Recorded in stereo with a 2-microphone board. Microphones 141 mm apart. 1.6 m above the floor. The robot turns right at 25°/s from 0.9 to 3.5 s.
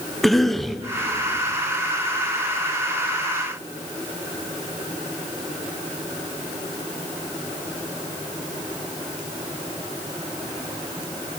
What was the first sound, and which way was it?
A cough, centre (ahead or behind).